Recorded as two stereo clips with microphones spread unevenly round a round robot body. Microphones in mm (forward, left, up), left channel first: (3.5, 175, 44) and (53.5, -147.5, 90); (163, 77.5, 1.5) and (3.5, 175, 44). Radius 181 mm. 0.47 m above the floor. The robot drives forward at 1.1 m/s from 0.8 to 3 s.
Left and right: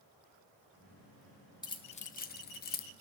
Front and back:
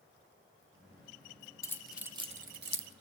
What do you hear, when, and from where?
1.6 s keys jangling: 30° left, 1.0 m; by 2.9 s 145° left, 1.0 m